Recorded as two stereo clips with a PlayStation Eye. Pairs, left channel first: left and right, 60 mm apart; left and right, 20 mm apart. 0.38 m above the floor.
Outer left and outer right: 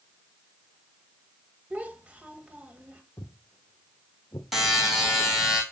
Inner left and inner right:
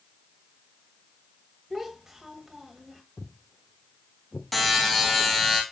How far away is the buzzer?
About 2.5 m.